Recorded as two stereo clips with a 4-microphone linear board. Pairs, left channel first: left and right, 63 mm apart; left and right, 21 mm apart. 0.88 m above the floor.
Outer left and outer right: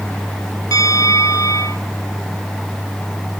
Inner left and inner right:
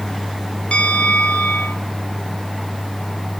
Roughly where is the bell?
Left.